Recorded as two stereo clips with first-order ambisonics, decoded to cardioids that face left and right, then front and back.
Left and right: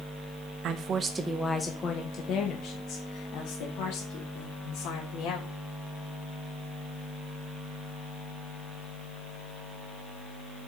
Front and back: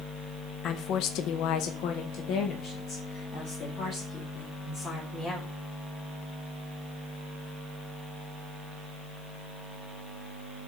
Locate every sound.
0.6 s a woman speaking: 45° right, 0.9 m; by 5.5 s 70° left, 3.5 m